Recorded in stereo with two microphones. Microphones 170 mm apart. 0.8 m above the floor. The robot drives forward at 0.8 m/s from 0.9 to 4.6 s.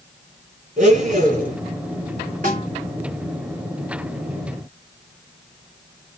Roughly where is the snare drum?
Right.